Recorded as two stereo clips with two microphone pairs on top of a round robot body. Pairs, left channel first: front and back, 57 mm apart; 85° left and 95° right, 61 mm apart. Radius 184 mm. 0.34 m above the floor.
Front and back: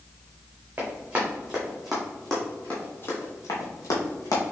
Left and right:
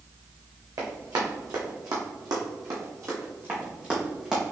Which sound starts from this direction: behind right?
Running footsteps, at 0.8 s.